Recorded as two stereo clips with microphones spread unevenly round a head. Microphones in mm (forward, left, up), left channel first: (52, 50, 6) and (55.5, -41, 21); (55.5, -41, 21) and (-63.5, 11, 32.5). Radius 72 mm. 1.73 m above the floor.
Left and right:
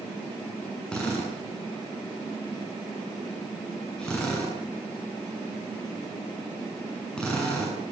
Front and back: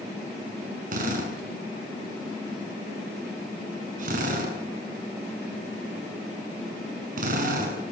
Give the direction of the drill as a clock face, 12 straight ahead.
6 o'clock.